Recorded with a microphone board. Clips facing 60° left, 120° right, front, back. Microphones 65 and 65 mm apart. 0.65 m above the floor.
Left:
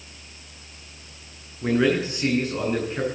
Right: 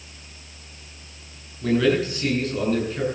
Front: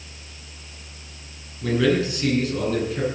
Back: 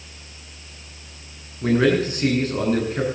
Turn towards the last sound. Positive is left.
turn(degrees=130)